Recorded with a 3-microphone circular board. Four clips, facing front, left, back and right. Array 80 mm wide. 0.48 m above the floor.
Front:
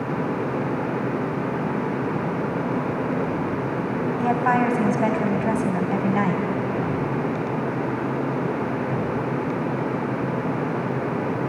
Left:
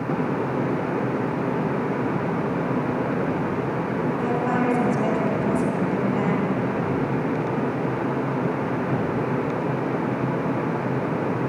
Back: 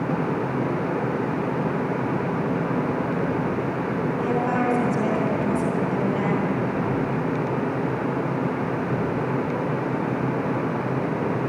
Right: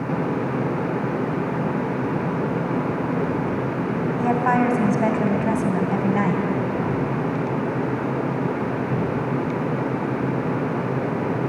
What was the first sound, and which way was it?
A woman speaking, 30° right.